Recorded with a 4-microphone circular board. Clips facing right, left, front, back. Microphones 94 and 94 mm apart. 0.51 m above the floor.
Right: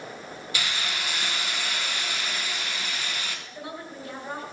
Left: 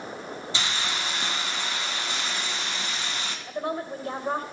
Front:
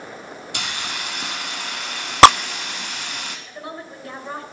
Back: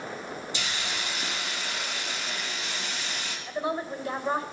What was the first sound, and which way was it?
A hiss, 25° left.